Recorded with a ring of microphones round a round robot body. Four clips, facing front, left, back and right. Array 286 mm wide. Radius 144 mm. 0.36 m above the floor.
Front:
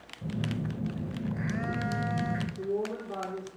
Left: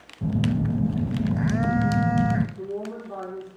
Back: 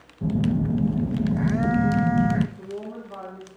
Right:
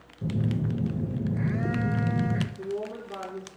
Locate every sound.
0.2 s a phone buzzing: 140° left, 0.8 m
2.6 s a woman speaking: 55° left, 9 m